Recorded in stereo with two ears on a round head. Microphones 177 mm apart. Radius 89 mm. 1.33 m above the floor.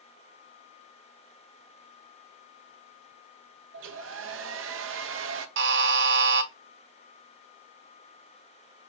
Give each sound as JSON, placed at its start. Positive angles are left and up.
{"t": 3.7, "sound": "a hair dryer", "side_deg": -65, "distance_m": 0.6}
{"t": 5.6, "sound": "a buzzer", "side_deg": -60, "distance_m": 0.6}